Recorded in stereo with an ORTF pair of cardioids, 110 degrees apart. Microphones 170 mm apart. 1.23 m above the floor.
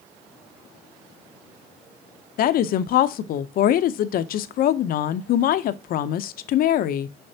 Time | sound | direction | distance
2.4 | a woman speaking | 60° left | 0.7 m